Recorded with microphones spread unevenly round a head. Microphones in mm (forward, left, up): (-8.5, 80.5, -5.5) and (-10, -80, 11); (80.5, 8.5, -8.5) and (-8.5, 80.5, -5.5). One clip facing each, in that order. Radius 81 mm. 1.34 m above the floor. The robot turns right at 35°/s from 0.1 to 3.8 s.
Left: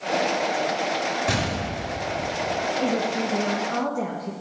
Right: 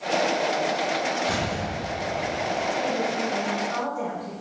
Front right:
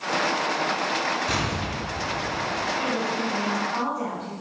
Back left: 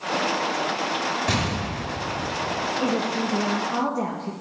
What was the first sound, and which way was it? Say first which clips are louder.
An explosion: left 1 dB, back left 1 dB; 130° left.